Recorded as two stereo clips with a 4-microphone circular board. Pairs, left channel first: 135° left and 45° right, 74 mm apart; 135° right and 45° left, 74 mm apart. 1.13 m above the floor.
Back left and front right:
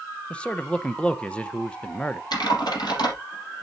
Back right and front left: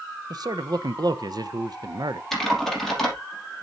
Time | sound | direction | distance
0.3 | a man speaking | 60° left | 0.8 m
2.3 | typing on a keyboard | 140° left | 4.5 m